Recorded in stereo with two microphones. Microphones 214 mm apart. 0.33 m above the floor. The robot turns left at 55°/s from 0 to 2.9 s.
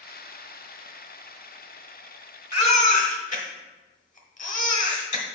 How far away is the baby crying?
About 1.2 m.